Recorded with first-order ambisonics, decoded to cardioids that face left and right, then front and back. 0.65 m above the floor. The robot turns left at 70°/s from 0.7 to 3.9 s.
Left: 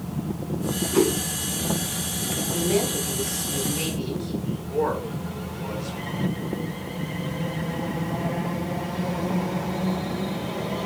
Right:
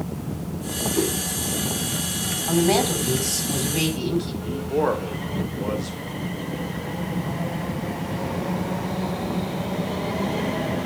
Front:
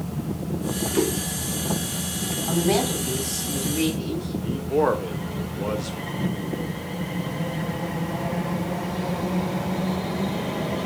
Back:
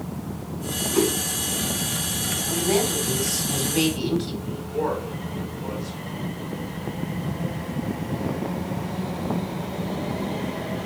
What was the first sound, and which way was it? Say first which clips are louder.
A whoosh: left 4 dB, back 2 dB; 120° left.